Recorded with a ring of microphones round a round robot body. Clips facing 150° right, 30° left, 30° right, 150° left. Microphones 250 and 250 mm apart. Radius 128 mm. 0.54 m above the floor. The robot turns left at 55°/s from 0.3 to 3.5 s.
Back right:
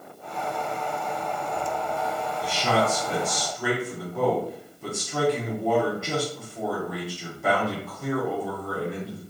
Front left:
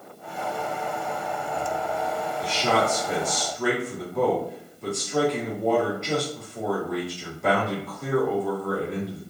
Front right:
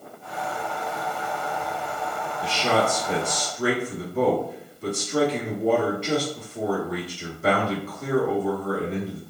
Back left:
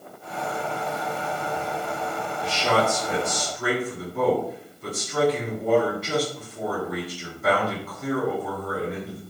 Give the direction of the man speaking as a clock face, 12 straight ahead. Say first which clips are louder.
Even, even; 12 o'clock.